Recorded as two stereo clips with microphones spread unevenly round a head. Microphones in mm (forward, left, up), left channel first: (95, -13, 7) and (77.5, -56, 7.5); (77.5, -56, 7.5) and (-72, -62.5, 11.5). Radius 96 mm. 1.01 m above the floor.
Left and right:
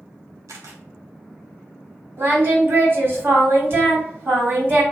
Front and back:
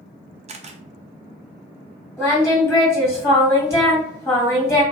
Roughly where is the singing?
Right.